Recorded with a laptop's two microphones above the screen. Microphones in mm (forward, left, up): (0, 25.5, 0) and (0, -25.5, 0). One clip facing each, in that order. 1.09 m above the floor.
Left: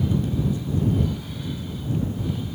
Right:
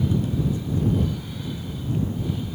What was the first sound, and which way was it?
Only background noise.